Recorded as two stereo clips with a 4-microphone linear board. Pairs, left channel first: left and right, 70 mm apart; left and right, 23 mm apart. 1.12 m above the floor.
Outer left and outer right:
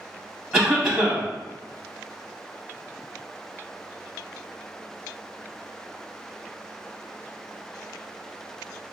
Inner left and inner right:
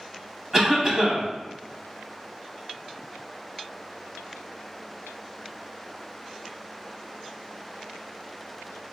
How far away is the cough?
About 0.8 m.